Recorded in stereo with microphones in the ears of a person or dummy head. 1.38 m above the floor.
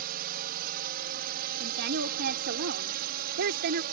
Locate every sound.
0.0 s a drone: 55° right (ahead or behind)
1.6 s a woman speaking: 55° right (ahead or behind)